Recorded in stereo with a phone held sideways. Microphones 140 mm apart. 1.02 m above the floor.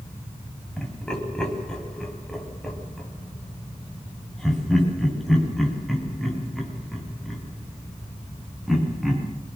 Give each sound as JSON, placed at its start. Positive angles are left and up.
{"t": 0.8, "sound": "laughter", "side_deg": 5, "distance_m": 8.5}